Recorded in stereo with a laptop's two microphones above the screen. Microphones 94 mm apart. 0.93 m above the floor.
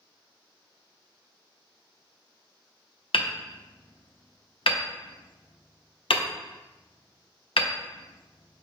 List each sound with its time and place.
3.1 s hammering: 80° left, 0.5 m